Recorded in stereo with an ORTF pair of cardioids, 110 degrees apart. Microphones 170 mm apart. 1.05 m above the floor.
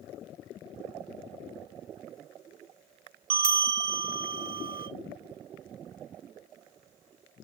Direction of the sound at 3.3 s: 60° right.